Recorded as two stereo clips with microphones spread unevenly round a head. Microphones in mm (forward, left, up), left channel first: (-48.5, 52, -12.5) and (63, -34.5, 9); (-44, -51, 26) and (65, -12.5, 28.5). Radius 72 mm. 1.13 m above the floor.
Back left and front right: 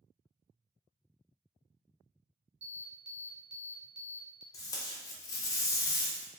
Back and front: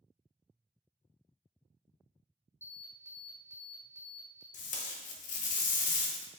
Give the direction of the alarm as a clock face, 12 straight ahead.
3 o'clock.